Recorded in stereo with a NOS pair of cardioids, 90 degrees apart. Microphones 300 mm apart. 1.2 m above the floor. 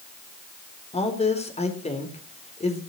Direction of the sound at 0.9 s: 20° left.